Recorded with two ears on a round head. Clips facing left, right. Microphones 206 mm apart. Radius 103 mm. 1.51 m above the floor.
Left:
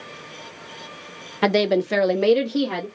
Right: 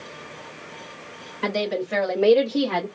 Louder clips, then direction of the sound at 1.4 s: Left 6 dB; 80° left.